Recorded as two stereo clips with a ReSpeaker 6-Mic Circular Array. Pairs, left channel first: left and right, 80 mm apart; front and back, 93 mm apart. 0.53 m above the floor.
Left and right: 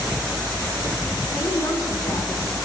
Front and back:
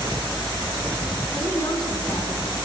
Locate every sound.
1.3 s a woman speaking: 45° left, 4 m